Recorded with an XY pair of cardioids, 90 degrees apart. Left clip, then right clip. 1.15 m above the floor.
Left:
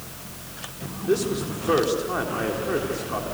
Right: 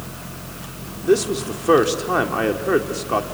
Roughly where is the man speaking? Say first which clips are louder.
Right 6 dB; ahead right.